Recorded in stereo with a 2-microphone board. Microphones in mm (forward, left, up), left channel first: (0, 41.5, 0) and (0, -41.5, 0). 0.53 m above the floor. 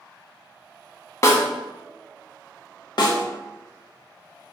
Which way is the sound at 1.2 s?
40° left (ahead or behind).